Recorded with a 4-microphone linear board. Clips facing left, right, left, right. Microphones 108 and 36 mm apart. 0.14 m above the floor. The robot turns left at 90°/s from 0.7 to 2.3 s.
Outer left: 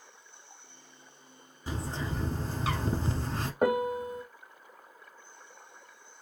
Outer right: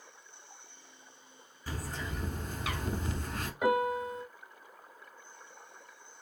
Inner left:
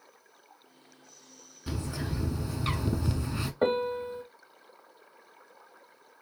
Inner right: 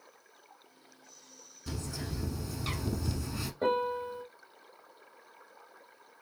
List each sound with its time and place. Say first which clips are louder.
1.7 s a bird: outer left 4 dB, inner left 4 dB; 135° left, 0.7 m; by 3.5 s 80° left, 0.7 m
3.6 s a piano: outer left 1 dB, inner left 2 dB; 50° left (ahead or behind), 1.3 m